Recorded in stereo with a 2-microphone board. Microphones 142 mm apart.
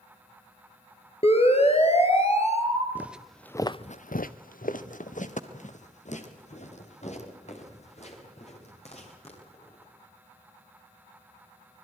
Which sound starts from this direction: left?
A siren, at 1.2 s.